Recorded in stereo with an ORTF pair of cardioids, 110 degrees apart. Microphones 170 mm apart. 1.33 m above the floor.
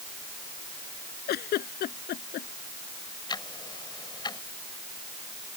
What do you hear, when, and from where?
1.3 s a giggle: 70° left
3.3 s ticking: 25° left